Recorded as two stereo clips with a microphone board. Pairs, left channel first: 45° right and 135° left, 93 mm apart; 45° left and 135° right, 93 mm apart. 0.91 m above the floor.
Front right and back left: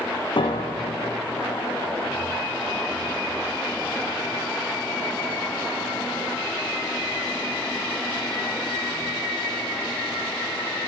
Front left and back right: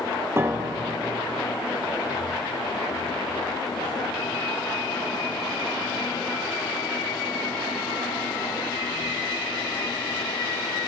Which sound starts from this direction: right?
A piano, at 0.4 s.